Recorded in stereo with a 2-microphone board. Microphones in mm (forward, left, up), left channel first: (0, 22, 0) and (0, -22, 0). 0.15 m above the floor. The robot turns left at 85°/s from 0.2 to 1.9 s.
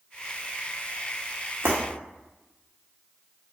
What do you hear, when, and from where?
1.6 s breaking glass: 85° right, 2 m; by 1.8 s 75° right (ahead or behind), 2 m